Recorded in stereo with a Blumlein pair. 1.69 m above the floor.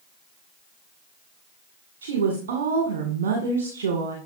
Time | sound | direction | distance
2.0 | a woman speaking | 55° right | 1.8 m